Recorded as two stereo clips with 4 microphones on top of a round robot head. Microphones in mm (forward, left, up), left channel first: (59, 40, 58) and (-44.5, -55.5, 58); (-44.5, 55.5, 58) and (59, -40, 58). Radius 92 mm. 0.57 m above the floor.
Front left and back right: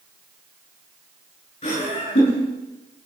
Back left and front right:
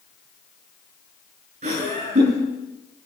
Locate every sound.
1.6 s laughter: 10° right, 9.5 m